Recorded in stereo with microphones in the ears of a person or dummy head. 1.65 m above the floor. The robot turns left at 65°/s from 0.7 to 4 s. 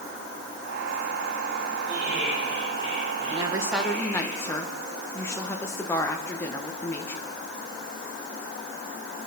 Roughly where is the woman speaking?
Behind right.